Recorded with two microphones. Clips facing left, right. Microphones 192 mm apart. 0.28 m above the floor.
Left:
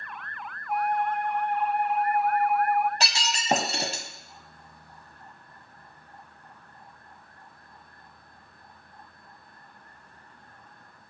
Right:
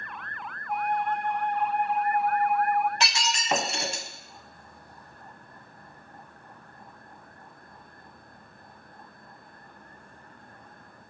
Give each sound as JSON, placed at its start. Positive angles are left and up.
{"t": 0.7, "sound": "a flute", "side_deg": 10, "distance_m": 1.8}
{"t": 3.0, "sound": "breaking glass", "side_deg": 35, "distance_m": 1.2}